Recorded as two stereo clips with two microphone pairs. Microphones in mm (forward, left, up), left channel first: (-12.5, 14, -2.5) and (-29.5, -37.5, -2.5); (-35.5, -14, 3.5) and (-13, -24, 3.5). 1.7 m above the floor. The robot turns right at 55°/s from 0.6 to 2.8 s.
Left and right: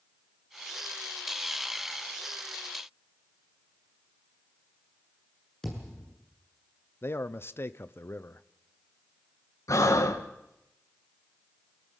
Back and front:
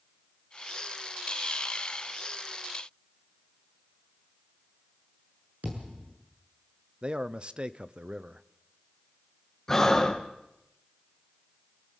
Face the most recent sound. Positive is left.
turn(degrees=85)